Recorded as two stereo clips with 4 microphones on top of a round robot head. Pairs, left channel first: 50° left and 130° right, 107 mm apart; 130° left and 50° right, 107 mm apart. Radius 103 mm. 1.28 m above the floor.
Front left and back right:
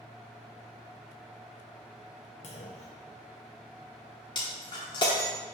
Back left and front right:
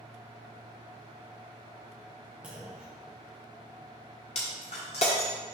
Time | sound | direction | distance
2.4 | a clunk | 30° left | 0.5 m
4.3 | breaking glass | 100° left | 1.0 m